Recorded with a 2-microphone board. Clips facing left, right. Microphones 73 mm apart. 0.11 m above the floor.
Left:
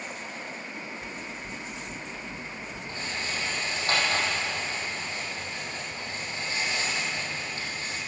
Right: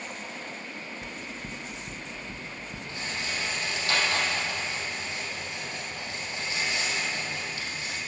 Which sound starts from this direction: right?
Knocking, at 1.0 s.